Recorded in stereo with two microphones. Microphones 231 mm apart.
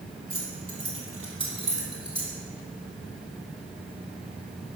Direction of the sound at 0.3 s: 70° right (ahead or behind).